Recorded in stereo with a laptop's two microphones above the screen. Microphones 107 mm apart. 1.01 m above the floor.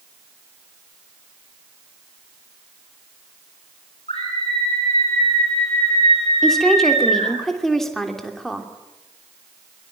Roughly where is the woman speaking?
Centre.